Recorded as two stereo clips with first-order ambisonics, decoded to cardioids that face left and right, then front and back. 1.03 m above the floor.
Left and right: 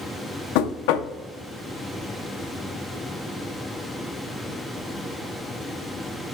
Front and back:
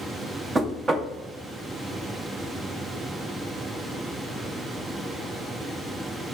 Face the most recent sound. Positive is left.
turn(degrees=105)